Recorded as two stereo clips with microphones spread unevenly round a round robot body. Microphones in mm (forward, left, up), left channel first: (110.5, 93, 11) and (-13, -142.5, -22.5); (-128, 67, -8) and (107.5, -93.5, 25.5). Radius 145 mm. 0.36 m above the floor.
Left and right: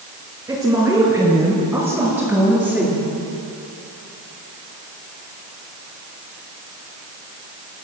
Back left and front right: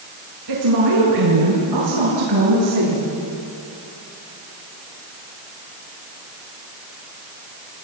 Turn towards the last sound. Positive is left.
turn(degrees=-30)